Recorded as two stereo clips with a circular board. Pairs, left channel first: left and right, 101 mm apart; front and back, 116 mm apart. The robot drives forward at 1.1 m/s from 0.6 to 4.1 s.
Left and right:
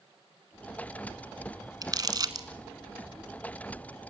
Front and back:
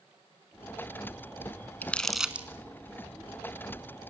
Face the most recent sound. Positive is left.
turn(degrees=-160)